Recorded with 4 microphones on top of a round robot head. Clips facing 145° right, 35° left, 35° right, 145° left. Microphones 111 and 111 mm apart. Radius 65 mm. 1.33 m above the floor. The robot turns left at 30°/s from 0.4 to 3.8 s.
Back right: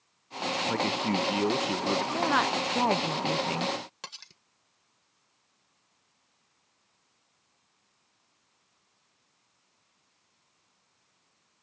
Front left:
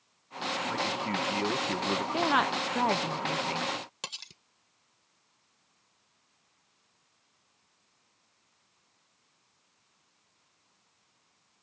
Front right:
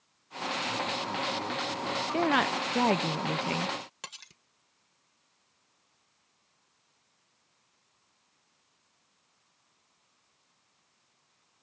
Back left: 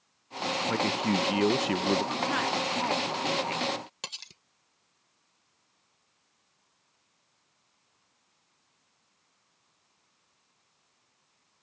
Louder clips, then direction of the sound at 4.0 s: Front left 2 dB, back left 2 dB; 100° left.